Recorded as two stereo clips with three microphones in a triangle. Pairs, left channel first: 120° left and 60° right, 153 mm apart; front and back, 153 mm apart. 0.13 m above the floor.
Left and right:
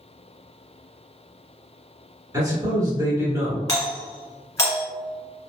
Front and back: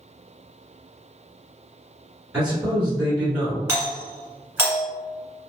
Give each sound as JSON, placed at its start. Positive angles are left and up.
{"t": 2.3, "sound": "a man speaking", "azimuth_deg": -105, "distance_m": 1.4}
{"t": 3.7, "sound": "a doorbell", "azimuth_deg": 135, "distance_m": 1.5}